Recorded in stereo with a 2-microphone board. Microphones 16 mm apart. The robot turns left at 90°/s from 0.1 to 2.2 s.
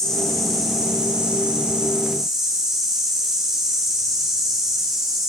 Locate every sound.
0.0 s an insect: 30° left, 7 m; by 5.3 s 160° right, 7 m